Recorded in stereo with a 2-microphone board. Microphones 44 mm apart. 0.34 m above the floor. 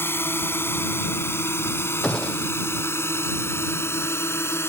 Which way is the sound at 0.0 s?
60° left (ahead or behind).